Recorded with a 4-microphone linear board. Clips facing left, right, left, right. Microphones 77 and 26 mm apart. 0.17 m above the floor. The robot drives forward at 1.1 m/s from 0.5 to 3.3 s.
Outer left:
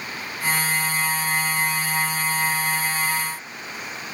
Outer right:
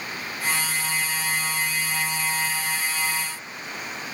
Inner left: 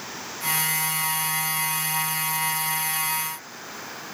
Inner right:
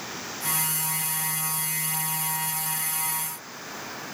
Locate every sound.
Only background noise.